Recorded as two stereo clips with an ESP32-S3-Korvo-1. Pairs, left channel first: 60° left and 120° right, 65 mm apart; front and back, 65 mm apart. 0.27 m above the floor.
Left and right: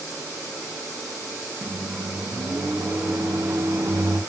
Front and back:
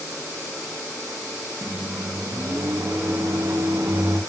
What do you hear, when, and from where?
1.6 s a microwave: 155° right, 2 m